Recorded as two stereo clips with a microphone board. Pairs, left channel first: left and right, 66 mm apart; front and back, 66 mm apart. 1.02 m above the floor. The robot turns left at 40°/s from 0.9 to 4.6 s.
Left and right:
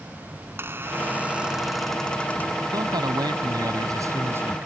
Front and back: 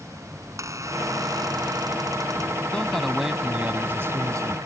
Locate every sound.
0.4 s a squeak: 145° right; by 2.6 s 145° left
2.7 s a man speaking: 75° right; by 4.7 s 150° right